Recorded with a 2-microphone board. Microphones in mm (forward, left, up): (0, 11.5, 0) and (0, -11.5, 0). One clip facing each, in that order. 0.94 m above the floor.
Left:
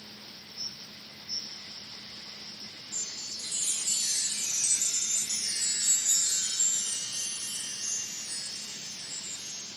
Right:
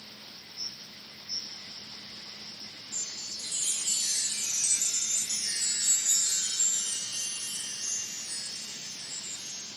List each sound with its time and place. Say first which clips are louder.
2.9 s a chime: even; 25° right (ahead or behind), 2.5 m